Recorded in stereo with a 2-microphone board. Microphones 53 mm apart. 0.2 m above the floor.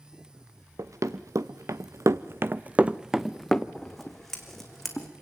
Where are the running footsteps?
80° right, 1.3 m; by 3.6 s 10° left (ahead or behind), 0.9 m.